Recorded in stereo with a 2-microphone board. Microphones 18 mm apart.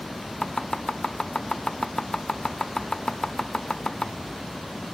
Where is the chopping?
35° left (ahead or behind), 0.7 m.